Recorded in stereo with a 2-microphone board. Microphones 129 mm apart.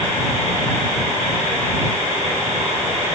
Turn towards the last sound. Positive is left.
No sound to turn to.